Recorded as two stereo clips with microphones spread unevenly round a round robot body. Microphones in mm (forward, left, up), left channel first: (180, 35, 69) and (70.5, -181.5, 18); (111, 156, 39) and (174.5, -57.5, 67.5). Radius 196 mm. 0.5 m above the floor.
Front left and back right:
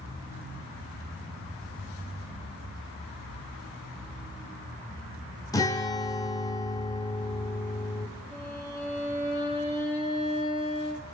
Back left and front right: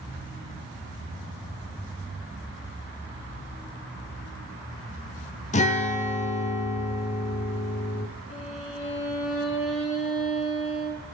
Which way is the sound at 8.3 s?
160° left.